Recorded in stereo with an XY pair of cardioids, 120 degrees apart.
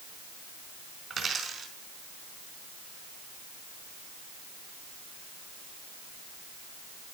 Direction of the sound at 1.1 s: 35° right.